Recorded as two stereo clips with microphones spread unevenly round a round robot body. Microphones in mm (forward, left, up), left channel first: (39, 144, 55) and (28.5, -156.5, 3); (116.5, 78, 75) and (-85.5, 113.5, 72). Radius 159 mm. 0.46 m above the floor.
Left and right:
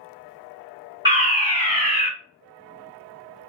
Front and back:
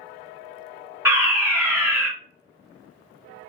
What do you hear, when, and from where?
1.1 s a fire alarm: 125° right, 1.8 m